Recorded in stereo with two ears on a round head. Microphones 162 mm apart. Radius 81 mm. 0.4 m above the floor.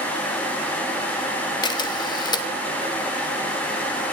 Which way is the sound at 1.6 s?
25° left (ahead or behind).